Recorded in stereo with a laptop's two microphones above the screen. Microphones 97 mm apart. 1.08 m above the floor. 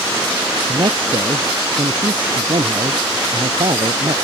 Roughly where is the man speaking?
Right.